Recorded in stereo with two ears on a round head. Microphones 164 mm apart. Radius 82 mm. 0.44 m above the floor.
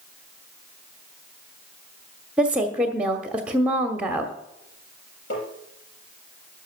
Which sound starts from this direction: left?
Tapping, at 5.3 s.